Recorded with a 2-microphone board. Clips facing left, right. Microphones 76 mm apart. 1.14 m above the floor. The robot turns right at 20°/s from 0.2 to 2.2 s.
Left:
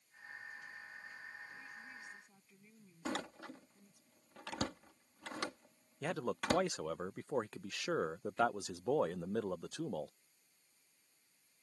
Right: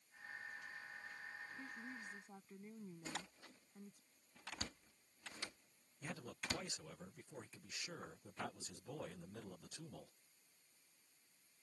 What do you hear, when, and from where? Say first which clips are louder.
1.6 s a woman speaking: right 1 dB; 50° right (ahead or behind); by 4.0 s 40° right (ahead or behind)
3.0 s a door slam: left 12 dB; 75° left (ahead or behind)
6.0 s a man speaking: left 12 dB; 75° left (ahead or behind)